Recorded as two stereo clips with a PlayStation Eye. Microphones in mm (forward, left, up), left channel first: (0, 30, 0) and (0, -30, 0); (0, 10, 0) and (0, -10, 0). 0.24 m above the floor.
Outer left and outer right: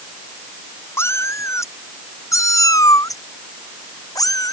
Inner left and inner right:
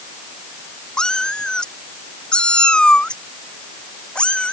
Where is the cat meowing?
45° left (ahead or behind); by 4.5 s 75° left (ahead or behind).